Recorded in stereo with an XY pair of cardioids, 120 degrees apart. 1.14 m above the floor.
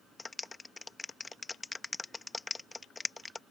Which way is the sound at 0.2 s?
20° left.